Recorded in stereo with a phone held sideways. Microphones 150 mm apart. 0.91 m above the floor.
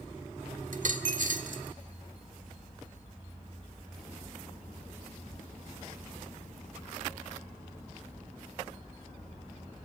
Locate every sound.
0.7 s a dropped coin: 65° right (ahead or behind), 1.2 m